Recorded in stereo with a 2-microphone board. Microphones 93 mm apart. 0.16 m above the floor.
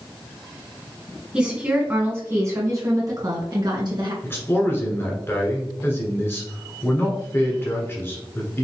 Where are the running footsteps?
No running footsteps in this recording.